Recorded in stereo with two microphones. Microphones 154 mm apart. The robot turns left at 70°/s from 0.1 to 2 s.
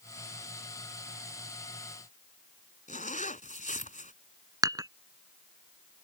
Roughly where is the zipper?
Left.